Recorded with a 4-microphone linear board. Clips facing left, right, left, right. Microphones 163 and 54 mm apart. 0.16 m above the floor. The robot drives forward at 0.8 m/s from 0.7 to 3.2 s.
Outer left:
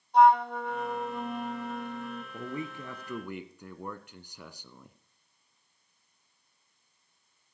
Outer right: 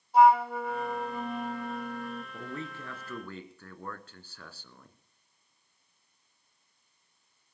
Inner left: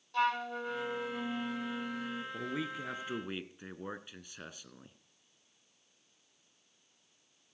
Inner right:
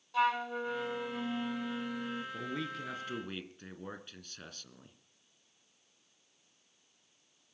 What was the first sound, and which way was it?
A flute, 5° right (ahead or behind).